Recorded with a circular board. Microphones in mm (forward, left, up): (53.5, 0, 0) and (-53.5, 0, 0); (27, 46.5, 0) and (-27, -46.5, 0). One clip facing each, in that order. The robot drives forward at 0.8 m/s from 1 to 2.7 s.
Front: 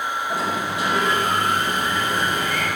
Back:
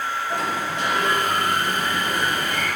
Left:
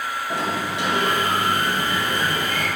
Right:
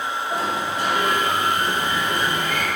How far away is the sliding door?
About 2.5 m.